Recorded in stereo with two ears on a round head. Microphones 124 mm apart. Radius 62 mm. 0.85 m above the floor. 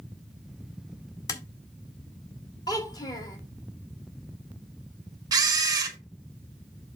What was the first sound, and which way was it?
Tapping, 25° left (ahead or behind).